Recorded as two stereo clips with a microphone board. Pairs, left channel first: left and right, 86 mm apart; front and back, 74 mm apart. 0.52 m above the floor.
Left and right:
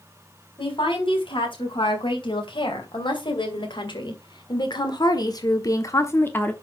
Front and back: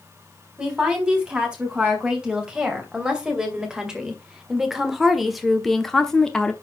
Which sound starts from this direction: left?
A woman speaking, at 0.6 s.